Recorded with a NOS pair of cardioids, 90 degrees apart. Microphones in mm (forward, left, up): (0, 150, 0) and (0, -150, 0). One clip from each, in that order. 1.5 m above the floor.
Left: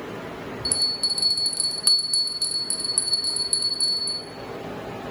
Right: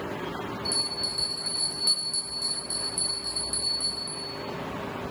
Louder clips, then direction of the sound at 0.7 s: Left 6 dB; 45° left.